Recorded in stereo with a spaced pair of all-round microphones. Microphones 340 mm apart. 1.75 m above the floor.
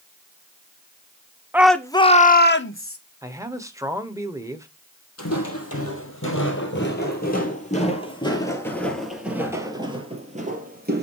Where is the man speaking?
10° right (ahead or behind), 1.1 m.